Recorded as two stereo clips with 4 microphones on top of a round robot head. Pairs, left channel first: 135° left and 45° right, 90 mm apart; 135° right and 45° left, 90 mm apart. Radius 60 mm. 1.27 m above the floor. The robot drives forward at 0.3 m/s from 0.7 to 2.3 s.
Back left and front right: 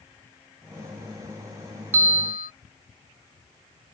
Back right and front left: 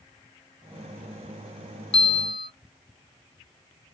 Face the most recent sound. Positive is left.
turn(degrees=-120)